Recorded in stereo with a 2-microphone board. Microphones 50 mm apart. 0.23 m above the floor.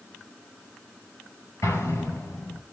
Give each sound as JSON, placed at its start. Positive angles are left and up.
{"t": 1.6, "sound": "an explosion", "side_deg": 75, "distance_m": 5.0}